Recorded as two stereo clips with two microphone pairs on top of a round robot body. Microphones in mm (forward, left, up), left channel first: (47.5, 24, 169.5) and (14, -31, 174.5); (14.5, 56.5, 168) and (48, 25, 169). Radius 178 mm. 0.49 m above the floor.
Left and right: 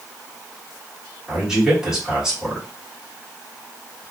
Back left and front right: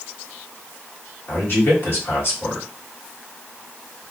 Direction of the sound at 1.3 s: 155° left.